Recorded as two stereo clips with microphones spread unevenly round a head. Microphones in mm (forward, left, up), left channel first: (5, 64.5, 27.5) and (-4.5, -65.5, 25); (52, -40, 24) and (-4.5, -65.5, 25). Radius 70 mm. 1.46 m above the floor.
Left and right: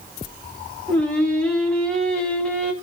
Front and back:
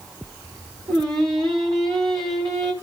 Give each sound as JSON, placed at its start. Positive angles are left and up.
{"t": 0.9, "sound": "singing", "azimuth_deg": 165, "distance_m": 2.5}